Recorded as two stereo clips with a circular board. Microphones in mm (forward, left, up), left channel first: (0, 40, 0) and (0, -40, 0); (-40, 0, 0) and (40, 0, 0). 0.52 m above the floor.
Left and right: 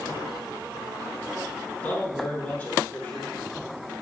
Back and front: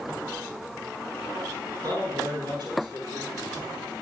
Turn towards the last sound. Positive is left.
turn(degrees=25)